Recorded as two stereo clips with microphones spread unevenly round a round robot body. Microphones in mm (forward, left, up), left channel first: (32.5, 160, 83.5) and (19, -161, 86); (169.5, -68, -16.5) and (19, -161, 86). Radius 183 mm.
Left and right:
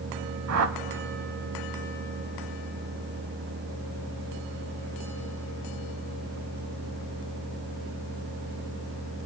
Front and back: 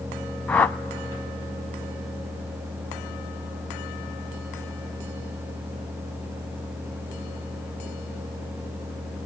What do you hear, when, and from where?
0.5 s a whoosh: 95° right, 0.5 m